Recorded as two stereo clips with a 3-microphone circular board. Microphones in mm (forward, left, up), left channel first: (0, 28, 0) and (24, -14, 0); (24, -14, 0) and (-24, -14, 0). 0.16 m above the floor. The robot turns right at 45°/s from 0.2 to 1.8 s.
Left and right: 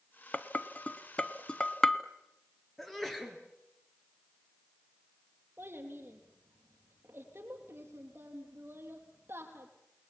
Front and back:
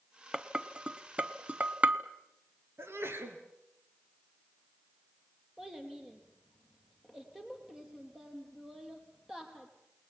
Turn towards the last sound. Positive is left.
turn(degrees=-100)